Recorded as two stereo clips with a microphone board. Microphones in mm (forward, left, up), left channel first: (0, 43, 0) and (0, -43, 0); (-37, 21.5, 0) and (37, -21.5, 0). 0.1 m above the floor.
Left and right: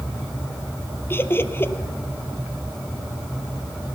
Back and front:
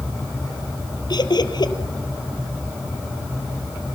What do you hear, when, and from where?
1.1 s laughter: 145° left, 2 m